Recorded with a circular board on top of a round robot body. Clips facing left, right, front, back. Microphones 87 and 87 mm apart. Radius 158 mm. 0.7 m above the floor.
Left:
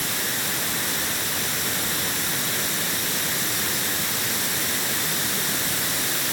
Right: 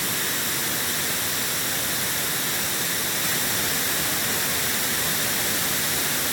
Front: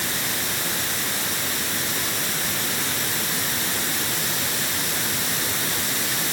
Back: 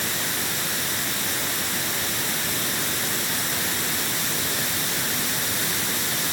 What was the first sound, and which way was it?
Only background noise.